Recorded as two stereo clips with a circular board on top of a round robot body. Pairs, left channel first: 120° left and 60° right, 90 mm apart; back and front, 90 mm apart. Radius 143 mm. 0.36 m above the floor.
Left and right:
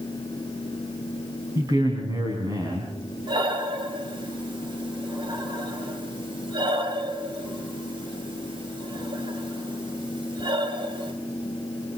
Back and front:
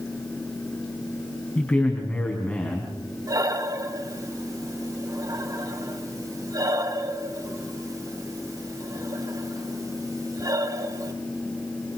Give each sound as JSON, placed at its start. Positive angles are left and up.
{"t": 1.6, "sound": "a man speaking", "azimuth_deg": -105, "distance_m": 4.0}
{"t": 3.3, "sound": "breathing", "azimuth_deg": -45, "distance_m": 3.0}